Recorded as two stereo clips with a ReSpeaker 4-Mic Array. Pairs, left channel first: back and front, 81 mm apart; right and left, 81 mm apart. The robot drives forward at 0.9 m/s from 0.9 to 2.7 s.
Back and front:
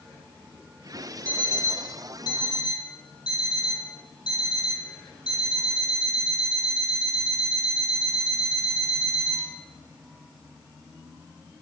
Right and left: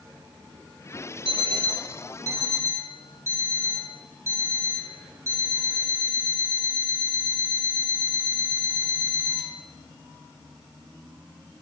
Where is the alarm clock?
110° left, 1.2 m; by 9.5 s 145° left, 2 m.